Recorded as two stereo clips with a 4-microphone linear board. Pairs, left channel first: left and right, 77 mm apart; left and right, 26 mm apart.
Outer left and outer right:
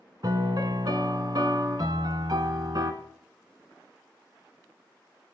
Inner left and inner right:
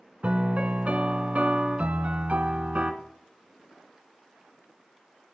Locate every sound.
0.2 s a piano: 60° right (ahead or behind), 0.9 m